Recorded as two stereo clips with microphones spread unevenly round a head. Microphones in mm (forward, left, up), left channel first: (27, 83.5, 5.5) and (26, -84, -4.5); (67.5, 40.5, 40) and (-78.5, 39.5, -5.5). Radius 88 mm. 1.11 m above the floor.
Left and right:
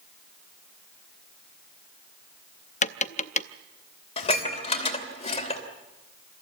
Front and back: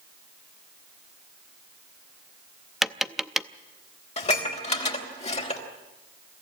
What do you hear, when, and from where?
2.8 s tapping: 75° left, 0.6 m
4.2 s dishes clattering: 35° left, 2.5 m